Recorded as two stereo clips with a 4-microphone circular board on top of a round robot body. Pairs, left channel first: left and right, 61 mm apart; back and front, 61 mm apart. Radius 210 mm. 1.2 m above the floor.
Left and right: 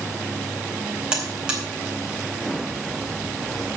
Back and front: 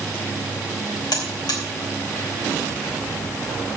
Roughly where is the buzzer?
Behind.